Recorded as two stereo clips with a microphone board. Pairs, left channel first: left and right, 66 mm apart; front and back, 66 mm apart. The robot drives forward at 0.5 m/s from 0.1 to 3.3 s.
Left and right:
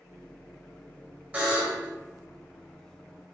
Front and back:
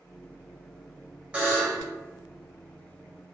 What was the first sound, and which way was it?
A buzzer, 130° right.